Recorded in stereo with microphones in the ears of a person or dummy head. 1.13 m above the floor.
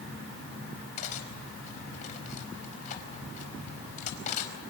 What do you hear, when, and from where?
1.0 s cutlery clinking: 50° left (ahead or behind), 4 m